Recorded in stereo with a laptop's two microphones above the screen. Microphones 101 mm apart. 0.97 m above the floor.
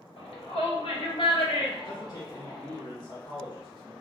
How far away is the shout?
About 1.2 m.